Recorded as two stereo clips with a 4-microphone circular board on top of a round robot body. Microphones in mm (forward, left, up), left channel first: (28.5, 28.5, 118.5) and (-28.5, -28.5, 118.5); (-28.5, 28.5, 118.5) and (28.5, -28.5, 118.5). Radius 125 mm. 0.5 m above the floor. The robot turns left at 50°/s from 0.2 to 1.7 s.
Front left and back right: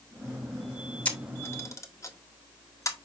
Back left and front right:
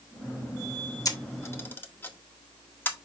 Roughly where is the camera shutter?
Behind left.